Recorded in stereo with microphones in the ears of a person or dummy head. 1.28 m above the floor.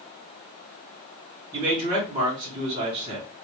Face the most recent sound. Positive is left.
turn(degrees=-25)  # may be behind; listen again after turning